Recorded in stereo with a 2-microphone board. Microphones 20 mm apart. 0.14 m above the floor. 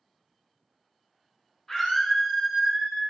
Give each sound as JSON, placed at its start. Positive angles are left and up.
{"t": 1.7, "sound": "a scream", "side_deg": 15, "distance_m": 1.0}